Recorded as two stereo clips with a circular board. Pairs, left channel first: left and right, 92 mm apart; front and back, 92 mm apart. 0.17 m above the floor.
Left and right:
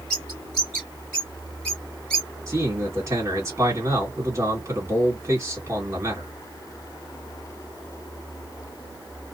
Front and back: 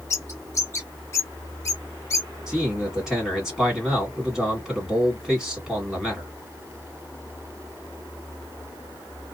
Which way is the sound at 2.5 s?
100° right.